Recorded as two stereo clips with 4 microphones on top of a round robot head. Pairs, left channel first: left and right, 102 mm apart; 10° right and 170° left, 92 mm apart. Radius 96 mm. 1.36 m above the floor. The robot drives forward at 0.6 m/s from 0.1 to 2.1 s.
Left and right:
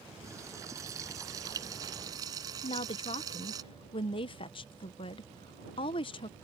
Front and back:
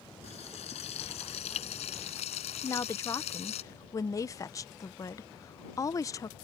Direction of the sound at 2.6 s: 45° left.